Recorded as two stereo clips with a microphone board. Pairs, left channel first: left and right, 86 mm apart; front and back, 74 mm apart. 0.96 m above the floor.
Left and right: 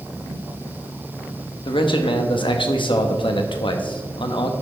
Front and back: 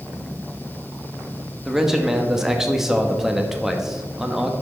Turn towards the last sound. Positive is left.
turn(degrees=100)